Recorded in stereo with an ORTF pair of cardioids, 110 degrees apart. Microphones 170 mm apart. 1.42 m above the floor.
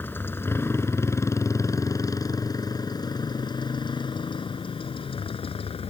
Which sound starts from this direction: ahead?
A motorcycle, at 0.0 s.